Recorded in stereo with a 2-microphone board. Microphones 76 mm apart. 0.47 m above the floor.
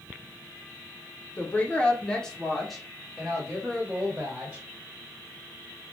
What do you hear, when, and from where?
1.4 s a woman speaking: 25° left (ahead or behind), 0.7 m; by 4.6 s 15° right (ahead or behind), 1.6 m